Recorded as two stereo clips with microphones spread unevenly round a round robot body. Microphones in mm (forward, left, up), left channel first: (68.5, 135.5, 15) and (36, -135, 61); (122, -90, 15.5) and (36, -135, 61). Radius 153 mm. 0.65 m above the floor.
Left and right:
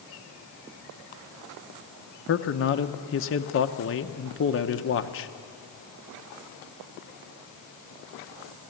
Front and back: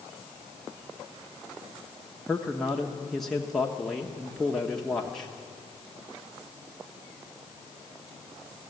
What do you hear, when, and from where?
2.3 s a man speaking: 95° left, 0.9 m